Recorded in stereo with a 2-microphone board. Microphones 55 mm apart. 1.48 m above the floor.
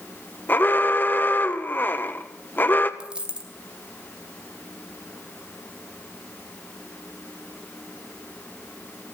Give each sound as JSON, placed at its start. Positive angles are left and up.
{"t": 0.5, "sound": "an alarm", "side_deg": 35, "distance_m": 1.4}
{"t": 3.0, "sound": "a dropped coin", "side_deg": -20, "distance_m": 2.0}